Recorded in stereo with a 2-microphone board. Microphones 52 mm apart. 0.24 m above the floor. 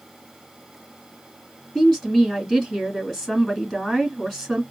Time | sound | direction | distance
1.8 | a woman speaking | 5° left (ahead or behind) | 2.5 m